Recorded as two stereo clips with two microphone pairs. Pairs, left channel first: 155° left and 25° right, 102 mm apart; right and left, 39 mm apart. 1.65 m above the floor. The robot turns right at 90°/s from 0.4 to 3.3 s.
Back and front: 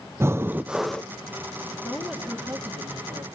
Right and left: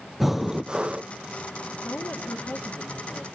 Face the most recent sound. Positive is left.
turn(degrees=0)